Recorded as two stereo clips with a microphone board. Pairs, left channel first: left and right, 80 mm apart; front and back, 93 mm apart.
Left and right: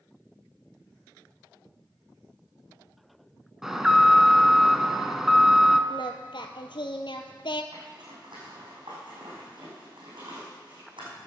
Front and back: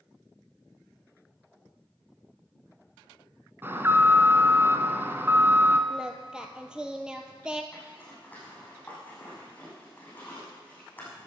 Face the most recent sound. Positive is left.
turn(degrees=-75)